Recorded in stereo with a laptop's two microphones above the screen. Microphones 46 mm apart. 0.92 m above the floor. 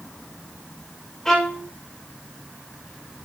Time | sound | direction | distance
1.2 | a violin | 15° left (ahead or behind) | 2 m